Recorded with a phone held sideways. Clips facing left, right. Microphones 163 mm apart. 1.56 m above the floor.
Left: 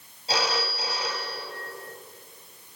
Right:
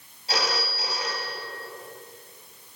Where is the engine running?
No engine running in this recording.